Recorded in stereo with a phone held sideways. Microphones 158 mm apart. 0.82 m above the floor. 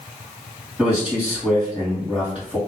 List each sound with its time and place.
0.8 s a man speaking: 10° right (ahead or behind), 2.0 m